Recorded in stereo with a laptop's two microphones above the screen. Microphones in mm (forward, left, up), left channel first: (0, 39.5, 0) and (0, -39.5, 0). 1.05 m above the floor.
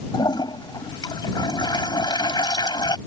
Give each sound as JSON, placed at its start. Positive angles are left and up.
{"t": 0.1, "sound": "a toilet flushing", "side_deg": 75}